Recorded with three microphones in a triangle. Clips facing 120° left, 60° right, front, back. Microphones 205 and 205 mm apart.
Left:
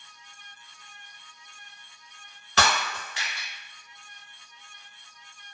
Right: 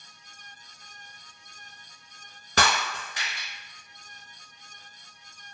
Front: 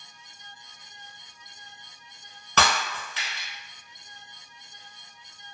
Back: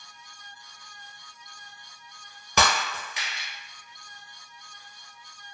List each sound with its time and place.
2.6 s breaking glass: 100° right, 1.0 m